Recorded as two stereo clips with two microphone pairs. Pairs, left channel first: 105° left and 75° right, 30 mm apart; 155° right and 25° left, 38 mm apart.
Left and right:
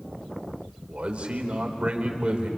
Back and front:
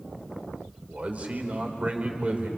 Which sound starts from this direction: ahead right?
A man speaking, at 0.9 s.